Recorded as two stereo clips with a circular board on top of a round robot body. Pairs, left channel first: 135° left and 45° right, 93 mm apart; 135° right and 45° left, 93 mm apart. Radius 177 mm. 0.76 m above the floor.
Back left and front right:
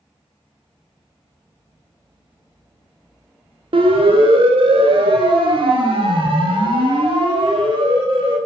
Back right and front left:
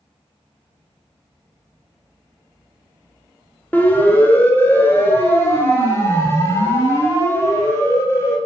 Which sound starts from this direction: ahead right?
A siren, at 3.7 s.